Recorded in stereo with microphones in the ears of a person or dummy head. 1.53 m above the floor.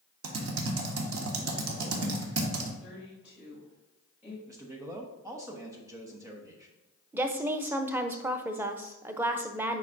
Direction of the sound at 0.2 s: 80° right.